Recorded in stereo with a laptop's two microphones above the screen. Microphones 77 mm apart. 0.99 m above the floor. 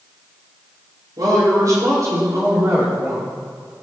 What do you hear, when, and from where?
1.2 s a woman speaking: 65° right (ahead or behind), 5 m; by 3.3 s 35° right (ahead or behind), 5 m